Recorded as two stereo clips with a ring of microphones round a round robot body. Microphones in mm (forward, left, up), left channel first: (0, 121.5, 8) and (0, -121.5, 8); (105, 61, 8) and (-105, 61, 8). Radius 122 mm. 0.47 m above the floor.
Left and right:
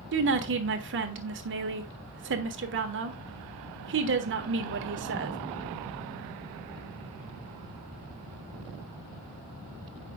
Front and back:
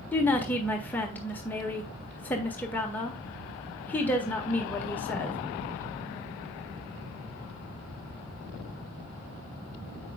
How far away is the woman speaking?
About 1.4 m.